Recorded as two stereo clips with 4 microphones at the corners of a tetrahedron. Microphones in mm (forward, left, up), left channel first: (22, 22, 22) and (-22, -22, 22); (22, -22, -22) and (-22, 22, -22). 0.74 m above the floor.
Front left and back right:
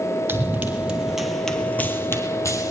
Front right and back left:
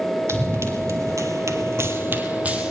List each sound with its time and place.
0.3 s running footsteps: 170° left, 1.9 m; by 2.7 s 65° left, 1.8 m